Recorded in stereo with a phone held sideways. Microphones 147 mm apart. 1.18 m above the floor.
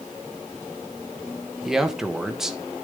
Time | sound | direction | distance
1.6 | a man speaking | 5° right (ahead or behind) | 1.3 m